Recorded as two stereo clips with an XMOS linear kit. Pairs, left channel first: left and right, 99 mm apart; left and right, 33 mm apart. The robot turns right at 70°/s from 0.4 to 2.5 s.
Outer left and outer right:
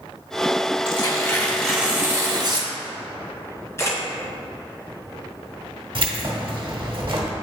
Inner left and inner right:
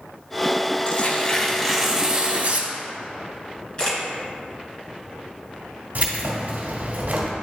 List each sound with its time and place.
0.8 s tearing paper: 120° left, 1.2 m; by 2.7 s 125° right, 1.2 m
3.8 s a camera shutter: 30° left (ahead or behind), 2 m
6.0 s keys jangling: 60° right (ahead or behind), 1.3 m